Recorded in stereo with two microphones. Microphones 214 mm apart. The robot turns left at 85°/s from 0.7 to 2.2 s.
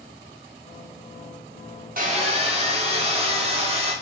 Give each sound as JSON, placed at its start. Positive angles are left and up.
{"t": 2.0, "sound": "sawing", "side_deg": -45, "distance_m": 0.8}